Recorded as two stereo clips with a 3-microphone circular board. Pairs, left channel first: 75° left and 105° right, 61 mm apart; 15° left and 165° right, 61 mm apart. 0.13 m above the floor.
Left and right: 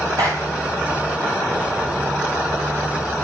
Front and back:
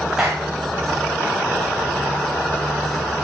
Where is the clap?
85° right, 7 m.